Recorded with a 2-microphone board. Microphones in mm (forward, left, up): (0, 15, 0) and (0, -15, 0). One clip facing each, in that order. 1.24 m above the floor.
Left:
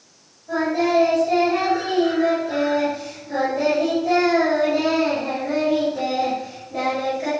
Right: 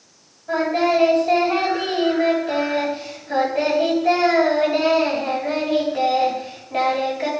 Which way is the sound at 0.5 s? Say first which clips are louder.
Right 1 dB; 45° right (ahead or behind).